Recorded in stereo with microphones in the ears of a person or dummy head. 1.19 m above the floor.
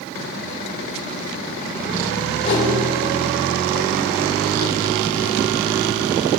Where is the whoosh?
45° left (ahead or behind), 7 m.